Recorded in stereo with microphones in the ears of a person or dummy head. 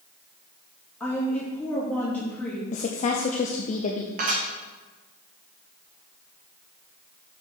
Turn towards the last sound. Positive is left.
turn(degrees=-40)  # may be behind; listen again after turning